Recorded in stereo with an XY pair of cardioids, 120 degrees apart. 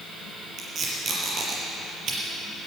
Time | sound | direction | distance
0.6 | tape being pulled | 50° right | 5 m